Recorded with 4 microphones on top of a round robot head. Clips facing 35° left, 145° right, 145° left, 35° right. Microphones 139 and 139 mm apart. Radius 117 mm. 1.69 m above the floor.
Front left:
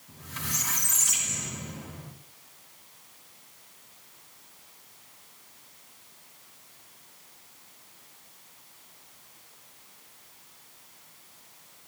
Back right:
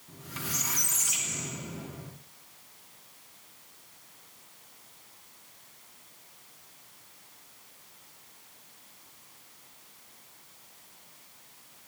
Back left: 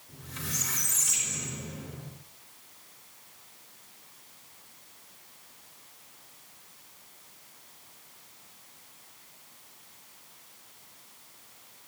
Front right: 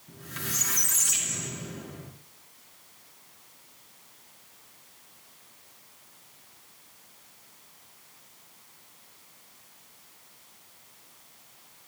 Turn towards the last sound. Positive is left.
turn(degrees=-65)